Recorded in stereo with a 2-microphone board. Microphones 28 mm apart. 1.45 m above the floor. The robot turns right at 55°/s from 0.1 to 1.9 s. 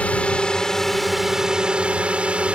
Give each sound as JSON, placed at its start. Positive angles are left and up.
{"t": 0.0, "sound": "a drone", "azimuth_deg": 130}